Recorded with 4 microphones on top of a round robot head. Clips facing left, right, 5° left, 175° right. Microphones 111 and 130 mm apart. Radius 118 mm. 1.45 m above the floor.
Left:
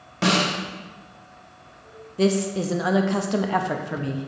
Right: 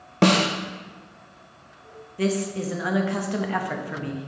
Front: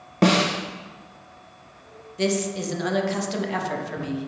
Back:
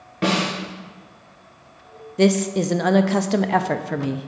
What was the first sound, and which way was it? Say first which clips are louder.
A snare drum: right 3 dB, front 3 dB; 50° right.